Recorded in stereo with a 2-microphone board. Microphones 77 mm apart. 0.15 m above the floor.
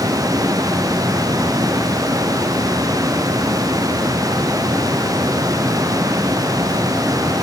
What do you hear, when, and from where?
Only background noise.